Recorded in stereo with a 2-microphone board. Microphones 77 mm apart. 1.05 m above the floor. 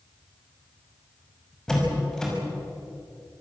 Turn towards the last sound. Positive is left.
turn(degrees=10)  # may be behind; listen again after turning